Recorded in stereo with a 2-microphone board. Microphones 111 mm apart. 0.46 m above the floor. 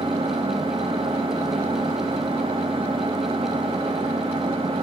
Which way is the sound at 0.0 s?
65° right (ahead or behind).